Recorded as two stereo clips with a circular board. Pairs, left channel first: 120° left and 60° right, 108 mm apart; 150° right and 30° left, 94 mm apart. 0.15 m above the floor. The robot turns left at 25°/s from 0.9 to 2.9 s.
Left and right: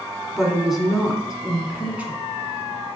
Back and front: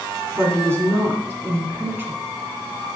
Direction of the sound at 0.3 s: 25° left.